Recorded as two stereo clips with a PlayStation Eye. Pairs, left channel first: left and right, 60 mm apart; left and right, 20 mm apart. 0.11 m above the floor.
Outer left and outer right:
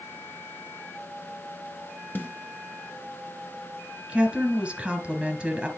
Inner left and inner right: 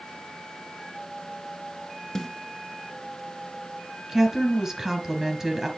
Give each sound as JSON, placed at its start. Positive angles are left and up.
{"t": 2.1, "sound": "a snare drum", "side_deg": 35, "distance_m": 1.2}
{"t": 4.1, "sound": "a woman speaking", "side_deg": -15, "distance_m": 1.6}